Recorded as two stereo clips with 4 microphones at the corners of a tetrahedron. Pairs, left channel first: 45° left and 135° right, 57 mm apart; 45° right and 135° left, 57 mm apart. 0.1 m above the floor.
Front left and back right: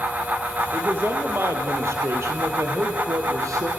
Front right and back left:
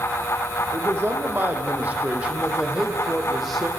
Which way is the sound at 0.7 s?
175° left.